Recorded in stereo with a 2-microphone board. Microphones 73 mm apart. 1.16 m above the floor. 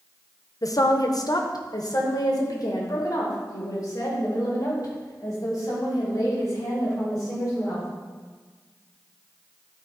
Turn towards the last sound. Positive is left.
turn(degrees=50)  # may be behind; listen again after turning